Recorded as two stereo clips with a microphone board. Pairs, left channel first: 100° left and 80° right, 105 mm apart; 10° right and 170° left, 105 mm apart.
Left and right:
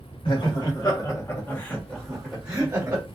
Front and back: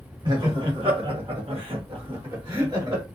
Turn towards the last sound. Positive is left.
turn(degrees=-145)